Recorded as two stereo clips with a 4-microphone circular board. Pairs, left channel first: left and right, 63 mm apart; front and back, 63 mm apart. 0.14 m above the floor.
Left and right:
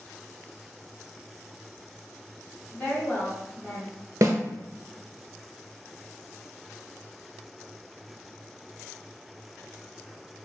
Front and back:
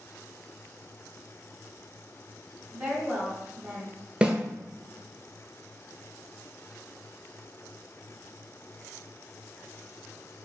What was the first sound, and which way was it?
A woman speaking, 135° left.